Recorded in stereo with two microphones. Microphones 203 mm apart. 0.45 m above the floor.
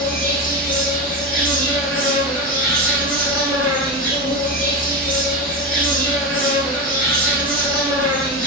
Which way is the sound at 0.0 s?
45° left (ahead or behind).